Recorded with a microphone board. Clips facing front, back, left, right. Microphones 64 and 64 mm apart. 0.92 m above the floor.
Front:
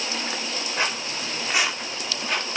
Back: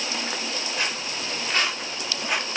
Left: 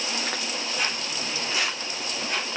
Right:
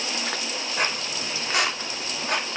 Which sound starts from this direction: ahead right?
Footsteps, at 0.8 s.